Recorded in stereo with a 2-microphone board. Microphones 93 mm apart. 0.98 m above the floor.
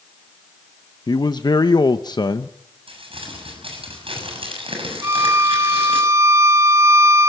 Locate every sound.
1.1 s a man speaking: 50° left (ahead or behind), 0.7 m
2.9 s crumpling: 75° right (ahead or behind), 7 m
5.0 s a violin: 35° right (ahead or behind), 0.8 m